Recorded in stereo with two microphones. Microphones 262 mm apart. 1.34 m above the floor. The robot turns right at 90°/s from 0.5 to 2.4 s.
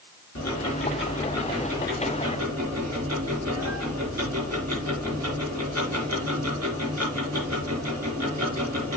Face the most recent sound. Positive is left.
turn(degrees=-100)